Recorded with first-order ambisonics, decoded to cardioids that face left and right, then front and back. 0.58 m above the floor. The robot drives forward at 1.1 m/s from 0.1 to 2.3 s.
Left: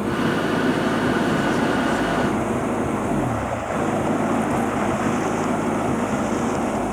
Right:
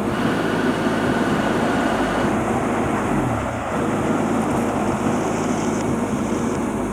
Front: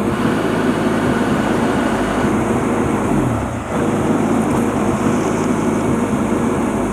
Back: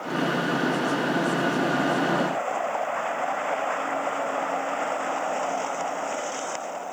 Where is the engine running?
5° right.